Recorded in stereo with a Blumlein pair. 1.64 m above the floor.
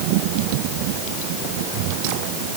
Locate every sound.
Only background noise.